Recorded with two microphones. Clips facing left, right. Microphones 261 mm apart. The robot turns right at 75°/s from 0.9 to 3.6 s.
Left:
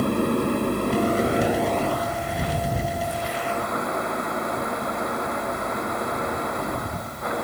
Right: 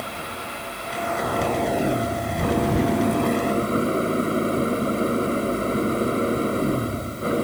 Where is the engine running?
125° left; by 7.5 s 35° right.